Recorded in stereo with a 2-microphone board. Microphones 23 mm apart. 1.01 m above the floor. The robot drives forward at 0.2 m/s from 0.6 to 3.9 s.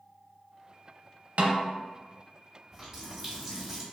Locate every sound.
1.4 s a snare drum: 70° right (ahead or behind), 0.6 m
2.7 s a running tap: 15° right (ahead or behind), 1.2 m; by 3.8 s 10° right (ahead or behind), 1.5 m